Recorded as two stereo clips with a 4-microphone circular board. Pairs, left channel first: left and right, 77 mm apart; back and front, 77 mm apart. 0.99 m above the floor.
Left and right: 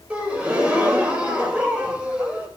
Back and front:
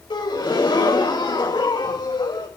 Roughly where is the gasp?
Behind.